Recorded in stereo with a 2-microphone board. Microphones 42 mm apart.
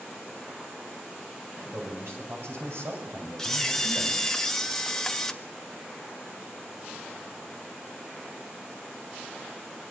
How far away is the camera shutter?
About 1.5 m.